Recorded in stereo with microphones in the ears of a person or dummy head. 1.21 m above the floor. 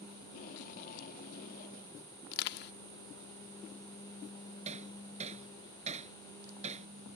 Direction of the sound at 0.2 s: 45° left (ahead or behind).